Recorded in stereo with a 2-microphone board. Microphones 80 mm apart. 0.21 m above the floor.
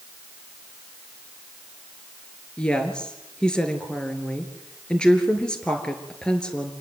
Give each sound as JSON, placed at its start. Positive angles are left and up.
{"t": 2.6, "sound": "a woman speaking", "side_deg": 10, "distance_m": 4.0}